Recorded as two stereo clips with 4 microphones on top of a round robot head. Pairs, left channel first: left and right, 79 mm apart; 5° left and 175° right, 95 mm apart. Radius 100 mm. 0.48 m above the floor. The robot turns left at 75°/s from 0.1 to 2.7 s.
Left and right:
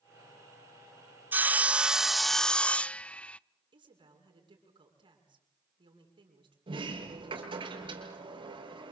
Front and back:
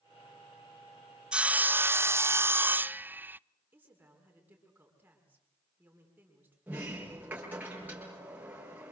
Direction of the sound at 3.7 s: 105° right.